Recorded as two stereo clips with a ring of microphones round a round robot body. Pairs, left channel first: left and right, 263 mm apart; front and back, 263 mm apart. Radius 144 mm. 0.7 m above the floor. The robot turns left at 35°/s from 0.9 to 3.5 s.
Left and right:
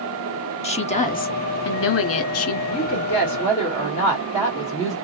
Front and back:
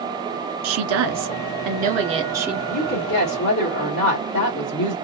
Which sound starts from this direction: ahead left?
A woman speaking, at 2.7 s.